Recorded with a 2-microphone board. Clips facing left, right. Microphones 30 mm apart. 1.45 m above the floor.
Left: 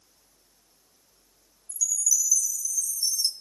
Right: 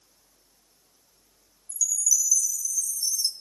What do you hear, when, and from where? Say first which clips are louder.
1.7 s a chime: right 1 dB; 20° left (ahead or behind), 1.3 m